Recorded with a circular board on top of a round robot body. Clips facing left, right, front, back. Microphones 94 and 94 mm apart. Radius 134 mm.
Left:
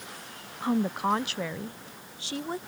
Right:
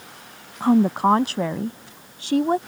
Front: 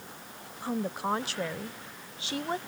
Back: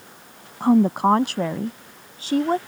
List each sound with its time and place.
0.6 s a woman speaking: 145° right; by 2.6 s 130° right